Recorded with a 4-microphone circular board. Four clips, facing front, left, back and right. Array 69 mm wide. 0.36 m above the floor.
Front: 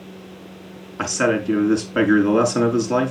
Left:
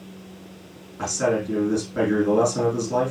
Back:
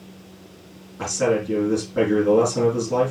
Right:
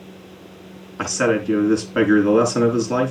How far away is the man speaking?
About 4.5 m.